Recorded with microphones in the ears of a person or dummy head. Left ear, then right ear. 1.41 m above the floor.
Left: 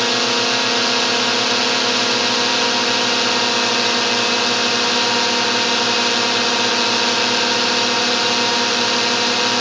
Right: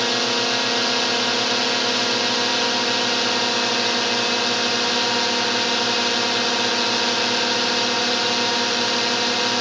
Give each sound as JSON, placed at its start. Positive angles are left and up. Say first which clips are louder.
{"t": 0.0, "sound": "a drone", "louder": "left 3 dB", "side_deg": 5}